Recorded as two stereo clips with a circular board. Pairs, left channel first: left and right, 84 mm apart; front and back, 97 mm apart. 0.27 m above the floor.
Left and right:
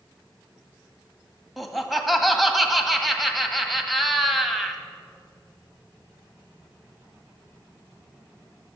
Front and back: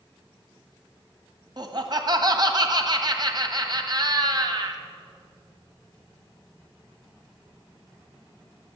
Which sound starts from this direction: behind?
Laughter, at 1.6 s.